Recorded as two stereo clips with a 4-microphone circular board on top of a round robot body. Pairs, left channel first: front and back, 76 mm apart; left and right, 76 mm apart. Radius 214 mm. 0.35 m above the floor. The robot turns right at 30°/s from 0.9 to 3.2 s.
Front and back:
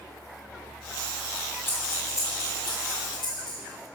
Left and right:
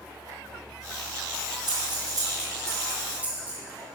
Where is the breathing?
65° right, 3 m; by 3.6 s 20° right, 3 m.